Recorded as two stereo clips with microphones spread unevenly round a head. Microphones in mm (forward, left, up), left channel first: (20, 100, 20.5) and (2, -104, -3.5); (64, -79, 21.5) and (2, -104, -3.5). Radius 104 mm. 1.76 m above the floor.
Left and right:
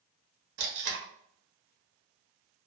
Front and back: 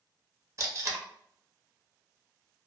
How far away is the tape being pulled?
About 0.7 m.